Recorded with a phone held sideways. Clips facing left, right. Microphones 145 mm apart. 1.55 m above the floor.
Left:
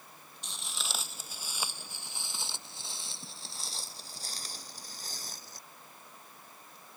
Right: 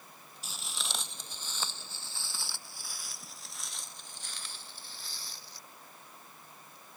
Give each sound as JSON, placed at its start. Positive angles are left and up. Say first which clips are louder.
{"t": 0.4, "sound": "footsteps", "louder": "even", "side_deg": -5}